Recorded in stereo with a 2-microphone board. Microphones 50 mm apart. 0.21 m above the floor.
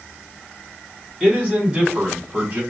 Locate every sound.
1.2 s a man speaking: 15° right (ahead or behind), 1.8 m; by 2.6 s 35° right (ahead or behind), 2.0 m